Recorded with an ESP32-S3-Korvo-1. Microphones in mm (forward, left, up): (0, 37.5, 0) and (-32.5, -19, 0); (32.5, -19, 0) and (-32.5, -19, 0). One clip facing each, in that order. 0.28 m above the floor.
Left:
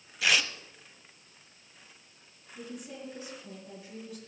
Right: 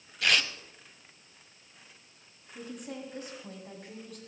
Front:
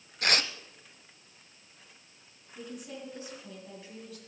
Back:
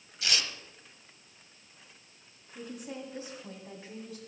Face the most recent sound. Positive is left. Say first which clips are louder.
# right 2 dB, back 1 dB
turn(degrees=-125)